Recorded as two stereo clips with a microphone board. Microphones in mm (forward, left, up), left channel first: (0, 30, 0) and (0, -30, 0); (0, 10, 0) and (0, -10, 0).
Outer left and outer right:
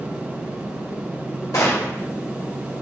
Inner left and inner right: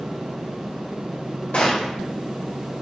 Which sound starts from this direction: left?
A gunshot, at 1.5 s.